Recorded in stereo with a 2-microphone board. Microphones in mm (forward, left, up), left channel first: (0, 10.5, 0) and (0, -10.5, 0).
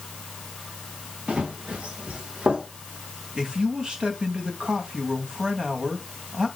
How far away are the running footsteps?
About 3.5 m.